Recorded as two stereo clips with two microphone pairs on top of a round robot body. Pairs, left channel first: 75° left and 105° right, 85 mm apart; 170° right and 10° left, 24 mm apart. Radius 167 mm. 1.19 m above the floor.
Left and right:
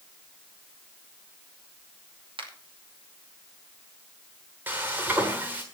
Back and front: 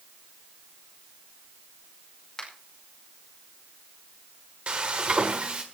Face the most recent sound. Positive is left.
turn(degrees=-35)